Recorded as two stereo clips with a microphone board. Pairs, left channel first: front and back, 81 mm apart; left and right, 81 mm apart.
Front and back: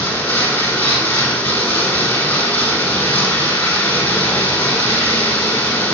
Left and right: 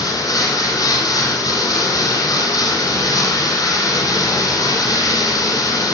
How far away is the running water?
About 1.1 m.